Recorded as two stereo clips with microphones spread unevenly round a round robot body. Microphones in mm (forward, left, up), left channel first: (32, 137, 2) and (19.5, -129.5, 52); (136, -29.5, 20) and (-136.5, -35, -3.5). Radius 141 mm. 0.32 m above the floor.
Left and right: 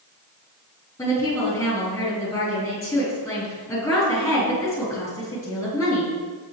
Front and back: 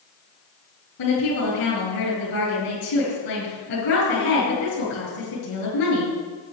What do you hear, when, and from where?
1.0 s a woman speaking: 10° left, 7 m